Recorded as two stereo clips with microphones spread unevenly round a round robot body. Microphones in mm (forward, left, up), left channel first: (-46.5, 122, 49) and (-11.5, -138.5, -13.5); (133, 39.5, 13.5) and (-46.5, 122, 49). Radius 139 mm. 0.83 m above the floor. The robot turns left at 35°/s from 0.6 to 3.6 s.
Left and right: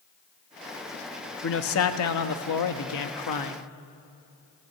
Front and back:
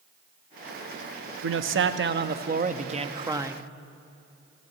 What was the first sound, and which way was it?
A man speaking, 145° left.